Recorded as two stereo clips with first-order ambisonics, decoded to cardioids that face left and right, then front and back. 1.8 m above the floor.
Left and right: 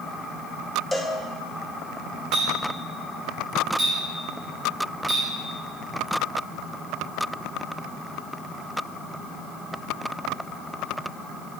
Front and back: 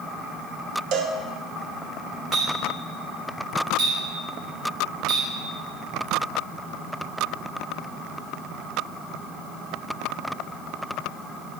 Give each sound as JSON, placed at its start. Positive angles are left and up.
{"t": 0.9, "sound": "a cowbell", "azimuth_deg": 175, "distance_m": 0.7}
{"t": 2.3, "sound": "a clink", "azimuth_deg": -155, "distance_m": 3.0}